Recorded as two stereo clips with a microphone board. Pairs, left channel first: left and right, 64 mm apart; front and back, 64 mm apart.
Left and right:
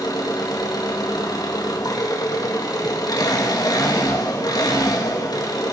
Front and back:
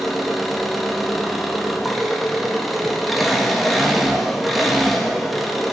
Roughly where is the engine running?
Left.